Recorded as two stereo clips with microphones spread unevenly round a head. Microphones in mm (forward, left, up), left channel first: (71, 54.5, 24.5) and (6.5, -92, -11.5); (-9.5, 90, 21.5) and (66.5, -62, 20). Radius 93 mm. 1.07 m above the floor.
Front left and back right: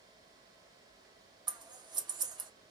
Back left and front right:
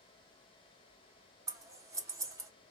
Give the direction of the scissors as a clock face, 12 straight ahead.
4 o'clock.